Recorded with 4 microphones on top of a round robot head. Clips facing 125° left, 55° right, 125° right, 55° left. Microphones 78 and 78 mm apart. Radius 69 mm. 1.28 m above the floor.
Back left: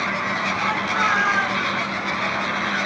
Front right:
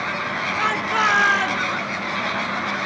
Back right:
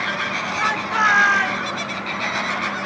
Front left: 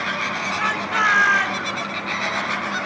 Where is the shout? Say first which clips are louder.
Front right 3 dB, back right 2 dB; 45° right, 4.5 m; by 1.6 s 40° right, 4 m.